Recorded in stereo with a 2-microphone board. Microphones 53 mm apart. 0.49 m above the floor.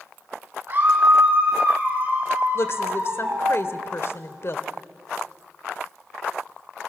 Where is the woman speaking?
55° left (ahead or behind), 1.7 m.